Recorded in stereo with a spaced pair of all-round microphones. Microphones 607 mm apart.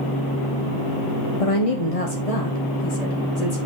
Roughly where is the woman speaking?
Left.